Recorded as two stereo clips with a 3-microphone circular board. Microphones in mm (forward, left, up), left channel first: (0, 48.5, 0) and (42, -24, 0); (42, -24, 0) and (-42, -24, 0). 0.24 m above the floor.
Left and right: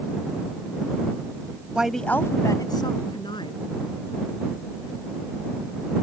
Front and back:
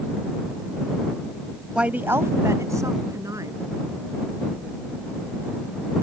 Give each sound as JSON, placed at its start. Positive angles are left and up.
{"t": 1.8, "sound": "a woman speaking", "azimuth_deg": -115}